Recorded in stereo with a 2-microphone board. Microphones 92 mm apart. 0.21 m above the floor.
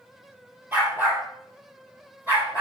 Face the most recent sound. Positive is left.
turn(degrees=-20)  # may be behind; listen again after turning